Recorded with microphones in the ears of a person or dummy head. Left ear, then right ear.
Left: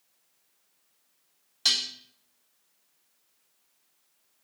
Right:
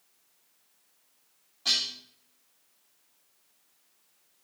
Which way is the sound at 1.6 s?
65° left (ahead or behind).